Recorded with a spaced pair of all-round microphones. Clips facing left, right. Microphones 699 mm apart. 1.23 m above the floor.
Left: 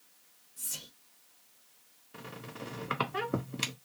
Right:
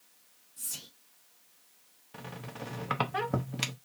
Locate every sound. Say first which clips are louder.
0.6 s whispering: left 1 dB; 5° left (ahead or behind), 0.7 m
2.1 s a squeak: right 1 dB; 25° right (ahead or behind), 0.6 m